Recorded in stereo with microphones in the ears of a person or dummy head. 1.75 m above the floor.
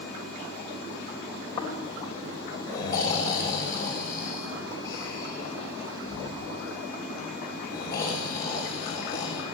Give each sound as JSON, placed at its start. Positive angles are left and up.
{"t": 1.6, "sound": "snoring", "side_deg": 30, "distance_m": 3.0}